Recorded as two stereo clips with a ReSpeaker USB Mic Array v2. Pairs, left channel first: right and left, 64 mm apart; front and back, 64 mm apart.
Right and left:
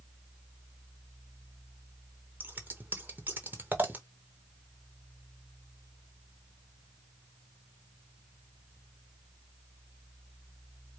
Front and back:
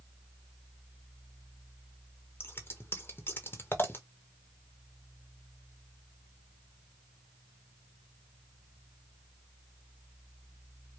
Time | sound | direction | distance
2.4 | scissors | 40° left | 1.1 m